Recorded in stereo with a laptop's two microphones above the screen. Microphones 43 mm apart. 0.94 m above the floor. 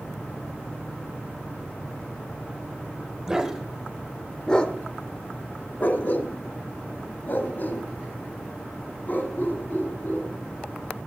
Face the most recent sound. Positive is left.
turn(degrees=40)  # may be behind; listen again after turning